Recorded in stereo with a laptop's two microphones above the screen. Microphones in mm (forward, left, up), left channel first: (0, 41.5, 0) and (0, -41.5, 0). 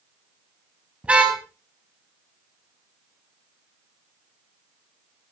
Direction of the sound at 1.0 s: 15° right (ahead or behind).